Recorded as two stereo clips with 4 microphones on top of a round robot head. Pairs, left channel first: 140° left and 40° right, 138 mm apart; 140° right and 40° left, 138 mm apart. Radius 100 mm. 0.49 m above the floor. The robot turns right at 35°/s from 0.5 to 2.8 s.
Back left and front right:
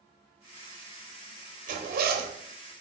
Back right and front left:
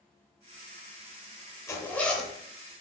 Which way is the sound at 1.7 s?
70° right.